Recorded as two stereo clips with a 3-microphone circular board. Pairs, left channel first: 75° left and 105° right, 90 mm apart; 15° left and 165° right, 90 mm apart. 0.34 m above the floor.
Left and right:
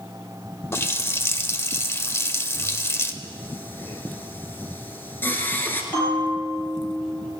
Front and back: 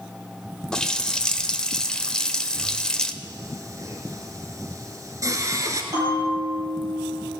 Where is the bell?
145° left, 6 m.